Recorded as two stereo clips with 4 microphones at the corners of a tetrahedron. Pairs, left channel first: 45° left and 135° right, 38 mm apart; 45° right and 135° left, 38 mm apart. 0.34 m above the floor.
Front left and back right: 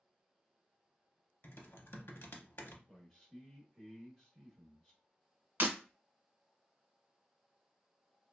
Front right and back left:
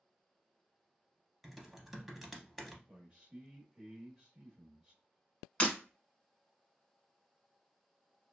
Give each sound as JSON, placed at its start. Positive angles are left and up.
{"t": 1.4, "sound": "typing on a keyboard", "azimuth_deg": 50, "distance_m": 0.6}
{"t": 2.9, "sound": "a man speaking", "azimuth_deg": 90, "distance_m": 0.8}
{"t": 5.6, "sound": "breaking glass", "azimuth_deg": -105, "distance_m": 1.0}